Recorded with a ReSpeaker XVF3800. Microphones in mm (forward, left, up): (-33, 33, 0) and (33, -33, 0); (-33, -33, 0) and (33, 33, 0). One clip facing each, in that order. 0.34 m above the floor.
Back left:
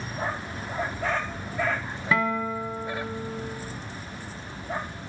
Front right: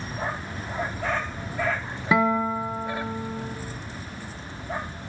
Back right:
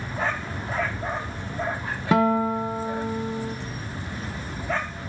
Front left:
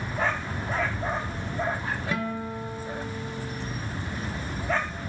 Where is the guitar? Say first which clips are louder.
Front right 4 dB, back right 15 dB; 115° right, 0.6 m.